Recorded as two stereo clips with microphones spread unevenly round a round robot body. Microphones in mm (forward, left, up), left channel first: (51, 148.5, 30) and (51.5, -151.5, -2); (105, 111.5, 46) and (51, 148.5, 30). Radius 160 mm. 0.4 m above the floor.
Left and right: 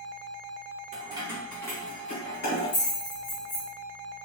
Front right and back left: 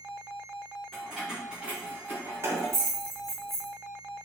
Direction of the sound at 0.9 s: 130° right.